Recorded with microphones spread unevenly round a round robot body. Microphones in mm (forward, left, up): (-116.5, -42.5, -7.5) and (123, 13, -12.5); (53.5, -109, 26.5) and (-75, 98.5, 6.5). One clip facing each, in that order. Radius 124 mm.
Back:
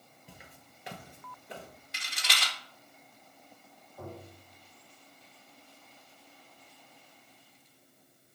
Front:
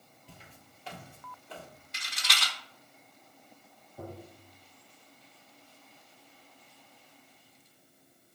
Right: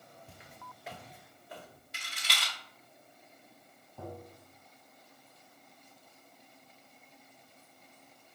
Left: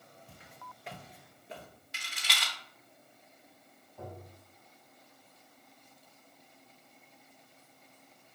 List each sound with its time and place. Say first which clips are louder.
0.3 s footsteps: even, right 1 dB; 100° right, 0.9 m; by 1.7 s 150° left, 0.9 m
1.9 s a rattle: back 1 dB, even; 150° left, 1.0 m
4.0 s tapping: front 1 dB, right 2 dB; 60° right, 1.4 m